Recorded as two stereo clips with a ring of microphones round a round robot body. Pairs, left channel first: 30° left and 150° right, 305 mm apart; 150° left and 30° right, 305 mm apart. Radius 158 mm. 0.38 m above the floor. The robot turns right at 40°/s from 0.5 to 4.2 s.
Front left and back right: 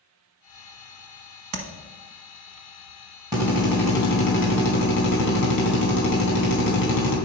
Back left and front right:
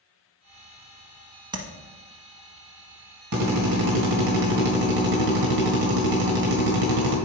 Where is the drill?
75° right, 3 m; by 7.2 s 40° right, 3 m.